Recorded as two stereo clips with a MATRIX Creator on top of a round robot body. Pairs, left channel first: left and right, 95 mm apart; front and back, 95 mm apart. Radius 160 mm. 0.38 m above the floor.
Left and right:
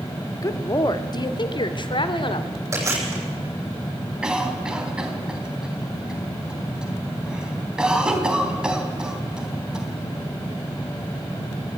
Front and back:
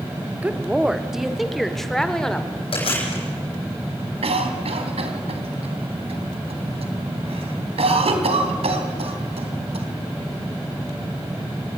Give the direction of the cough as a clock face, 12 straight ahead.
6 o'clock.